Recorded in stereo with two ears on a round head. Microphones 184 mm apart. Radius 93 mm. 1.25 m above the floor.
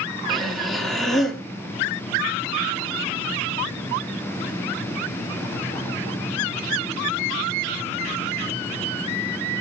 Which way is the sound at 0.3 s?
Centre (ahead or behind).